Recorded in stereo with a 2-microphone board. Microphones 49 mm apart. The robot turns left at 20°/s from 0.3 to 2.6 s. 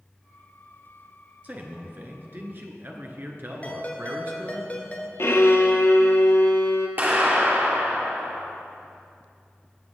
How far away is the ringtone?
About 1.6 m.